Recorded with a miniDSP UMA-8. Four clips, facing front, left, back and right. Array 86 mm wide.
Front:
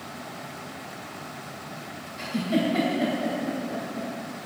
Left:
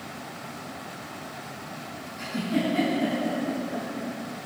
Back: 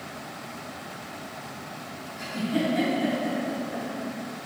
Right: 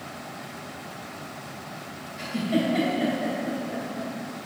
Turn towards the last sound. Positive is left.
turn(degrees=-45)